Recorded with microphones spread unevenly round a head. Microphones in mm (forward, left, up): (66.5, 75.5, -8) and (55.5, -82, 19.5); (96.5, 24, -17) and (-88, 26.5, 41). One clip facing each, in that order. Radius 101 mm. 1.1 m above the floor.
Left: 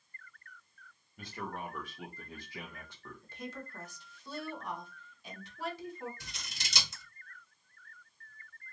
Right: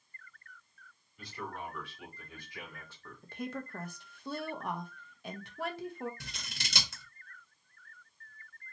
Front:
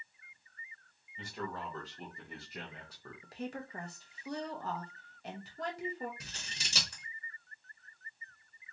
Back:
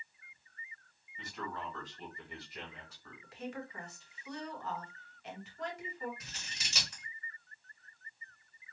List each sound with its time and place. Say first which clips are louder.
1.2 s a man speaking: left 1 dB, front 2 dB; 55° left, 1.7 m; by 3.2 s 10° left, 1.0 m
3.2 s a woman speaking: right 5 dB, front 1 dB; 55° right, 0.9 m
6.2 s scissors: right 2 dB, front 2 dB; 60° right, 1.4 m